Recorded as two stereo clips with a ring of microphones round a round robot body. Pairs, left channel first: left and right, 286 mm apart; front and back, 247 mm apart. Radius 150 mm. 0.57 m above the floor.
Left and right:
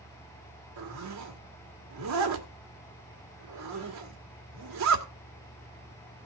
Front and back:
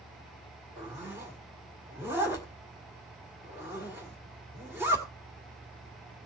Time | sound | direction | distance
0.8 | a zipper | 100° right | 2.0 m